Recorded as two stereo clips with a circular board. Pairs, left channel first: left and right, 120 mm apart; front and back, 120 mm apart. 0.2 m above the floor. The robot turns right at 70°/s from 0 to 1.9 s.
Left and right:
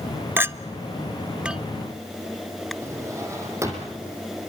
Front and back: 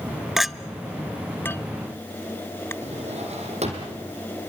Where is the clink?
105° right, 0.5 m; by 2.7 s 5° left, 0.5 m.